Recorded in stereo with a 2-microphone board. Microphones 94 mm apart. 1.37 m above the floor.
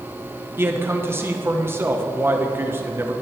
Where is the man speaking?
25° right (ahead or behind), 1.3 m.